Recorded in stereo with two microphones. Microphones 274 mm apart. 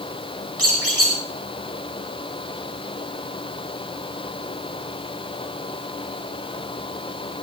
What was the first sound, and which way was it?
A squeak, 60° right (ahead or behind).